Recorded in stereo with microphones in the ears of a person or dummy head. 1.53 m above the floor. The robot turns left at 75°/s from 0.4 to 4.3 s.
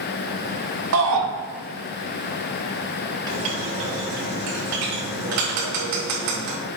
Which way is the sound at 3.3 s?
25° right (ahead or behind).